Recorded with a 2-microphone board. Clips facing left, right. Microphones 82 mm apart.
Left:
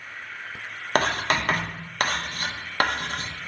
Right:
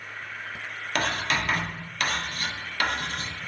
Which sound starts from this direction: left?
Writing, at 0.9 s.